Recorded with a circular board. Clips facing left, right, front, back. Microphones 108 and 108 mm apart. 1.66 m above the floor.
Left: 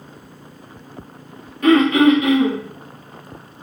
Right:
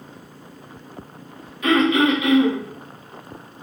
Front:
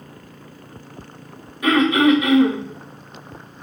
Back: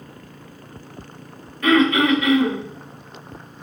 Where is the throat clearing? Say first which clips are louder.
Left 5 dB, front 1 dB; 70° left, 1.0 m.